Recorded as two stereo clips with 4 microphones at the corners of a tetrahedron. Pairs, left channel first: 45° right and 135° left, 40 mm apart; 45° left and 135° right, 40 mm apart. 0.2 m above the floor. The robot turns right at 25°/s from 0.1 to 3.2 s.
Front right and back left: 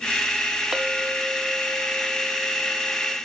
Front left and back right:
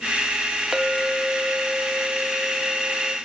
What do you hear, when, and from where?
0.7 s a clink: 175° left, 0.7 m; by 3.2 s 125° right, 0.7 m